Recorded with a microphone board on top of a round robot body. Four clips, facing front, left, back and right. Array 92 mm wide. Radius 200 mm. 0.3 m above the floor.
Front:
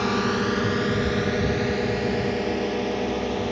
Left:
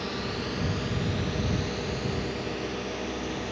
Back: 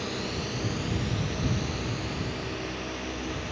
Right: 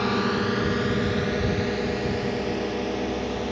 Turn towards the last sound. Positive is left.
turn(degrees=-25)